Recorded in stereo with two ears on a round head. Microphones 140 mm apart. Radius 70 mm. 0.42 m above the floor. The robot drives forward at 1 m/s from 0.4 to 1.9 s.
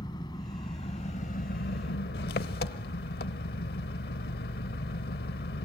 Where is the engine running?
30° left (ahead or behind), 1.7 m; by 5.7 s 70° left (ahead or behind), 0.8 m.